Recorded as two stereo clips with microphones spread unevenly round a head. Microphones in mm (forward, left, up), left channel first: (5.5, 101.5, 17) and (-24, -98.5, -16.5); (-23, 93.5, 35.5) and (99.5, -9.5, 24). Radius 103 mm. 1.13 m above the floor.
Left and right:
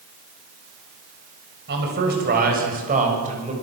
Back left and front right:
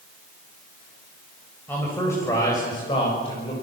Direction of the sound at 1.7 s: 140° right.